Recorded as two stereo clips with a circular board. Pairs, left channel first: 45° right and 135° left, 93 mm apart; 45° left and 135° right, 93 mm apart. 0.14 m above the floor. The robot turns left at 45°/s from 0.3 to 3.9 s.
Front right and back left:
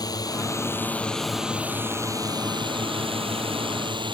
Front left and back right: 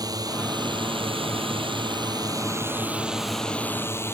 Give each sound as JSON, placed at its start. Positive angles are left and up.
{"t": 0.0, "sound": "a drone", "azimuth_deg": -90}